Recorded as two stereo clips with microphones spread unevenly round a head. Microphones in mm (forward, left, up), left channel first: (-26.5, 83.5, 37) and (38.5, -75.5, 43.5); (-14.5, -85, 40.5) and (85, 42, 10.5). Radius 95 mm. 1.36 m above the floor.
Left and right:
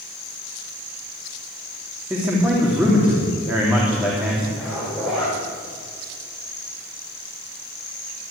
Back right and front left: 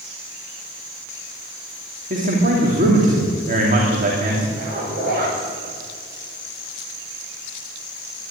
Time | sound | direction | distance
2.1 | a man speaking | 15° left | 3 m
4.6 | a zipper | 20° left | 6.5 m